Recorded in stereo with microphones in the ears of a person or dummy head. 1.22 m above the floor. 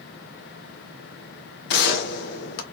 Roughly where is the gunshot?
Left.